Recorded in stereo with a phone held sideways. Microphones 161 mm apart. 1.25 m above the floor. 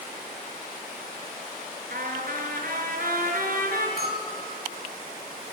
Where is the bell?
80° right, 6 m.